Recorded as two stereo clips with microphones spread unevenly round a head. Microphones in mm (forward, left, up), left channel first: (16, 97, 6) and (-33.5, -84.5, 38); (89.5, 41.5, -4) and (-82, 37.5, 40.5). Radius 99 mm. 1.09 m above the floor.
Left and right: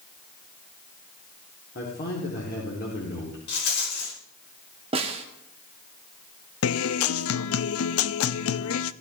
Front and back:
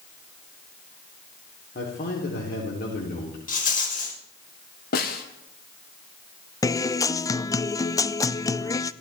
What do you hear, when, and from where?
1.8 s a man speaking: 35° left, 3.5 m
3.5 s a rattle: 40° left, 5 m
4.9 s a snare drum: 45° right, 1.7 m
6.6 s a guitar: 80° left, 0.5 m